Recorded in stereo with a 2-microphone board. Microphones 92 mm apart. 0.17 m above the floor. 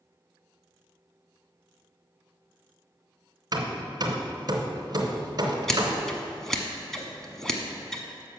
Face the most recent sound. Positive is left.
turn(degrees=5)  # may be behind; listen again after turning